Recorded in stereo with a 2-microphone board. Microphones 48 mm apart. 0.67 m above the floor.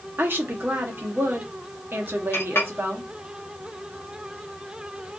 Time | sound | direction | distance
0.2 | a woman speaking | 50° right (ahead or behind) | 0.9 m
2.3 | a clink | 55° left (ahead or behind) | 0.7 m